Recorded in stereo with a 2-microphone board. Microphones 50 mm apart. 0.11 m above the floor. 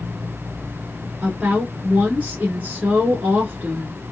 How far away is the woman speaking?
About 1.1 m.